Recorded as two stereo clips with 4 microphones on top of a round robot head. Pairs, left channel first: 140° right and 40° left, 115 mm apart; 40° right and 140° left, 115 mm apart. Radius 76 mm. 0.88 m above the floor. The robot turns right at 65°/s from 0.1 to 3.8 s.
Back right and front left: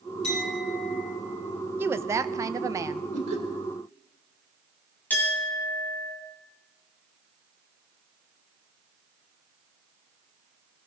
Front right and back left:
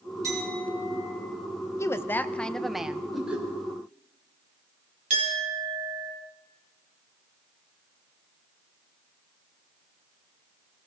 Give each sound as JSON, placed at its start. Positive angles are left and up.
{"t": 0.2, "sound": "a clink", "azimuth_deg": -165, "distance_m": 7.0}
{"t": 1.8, "sound": "a woman speaking", "azimuth_deg": -10, "distance_m": 0.5}
{"t": 3.1, "sound": "laughter", "azimuth_deg": 50, "distance_m": 3.0}
{"t": 5.1, "sound": "a clink", "azimuth_deg": 145, "distance_m": 3.5}